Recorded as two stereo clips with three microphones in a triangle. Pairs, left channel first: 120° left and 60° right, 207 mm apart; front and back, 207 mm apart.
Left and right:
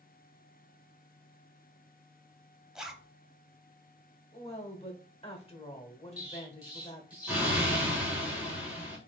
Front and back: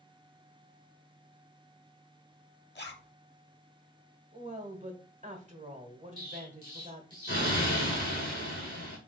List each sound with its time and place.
2.8 s a zipper: 25° left, 0.6 m
4.3 s a woman speaking: 160° left, 1.0 m
6.2 s an explosion: 25° left, 1.8 m